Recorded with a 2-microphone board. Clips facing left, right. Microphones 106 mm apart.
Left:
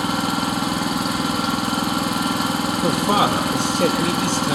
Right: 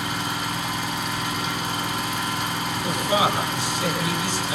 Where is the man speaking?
65° left (ahead or behind), 5.5 m.